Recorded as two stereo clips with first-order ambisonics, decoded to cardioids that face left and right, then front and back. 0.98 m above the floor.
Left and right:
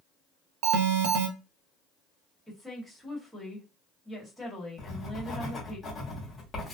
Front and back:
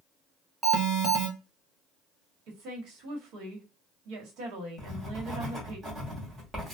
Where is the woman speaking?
Straight behind, 1.2 m.